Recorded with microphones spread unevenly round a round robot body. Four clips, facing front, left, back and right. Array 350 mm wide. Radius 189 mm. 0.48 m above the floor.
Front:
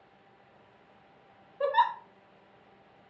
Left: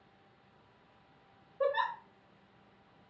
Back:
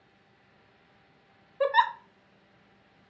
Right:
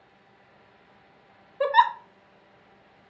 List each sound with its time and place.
1.6 s a giggle: 120° right, 0.6 m